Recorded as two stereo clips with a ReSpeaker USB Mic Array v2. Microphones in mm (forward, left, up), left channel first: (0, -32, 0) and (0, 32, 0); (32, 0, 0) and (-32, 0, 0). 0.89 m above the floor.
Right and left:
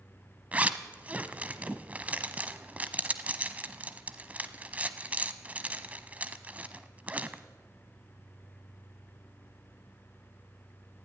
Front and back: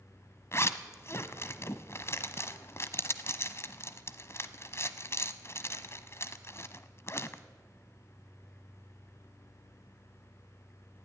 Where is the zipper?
30° left, 1.0 m.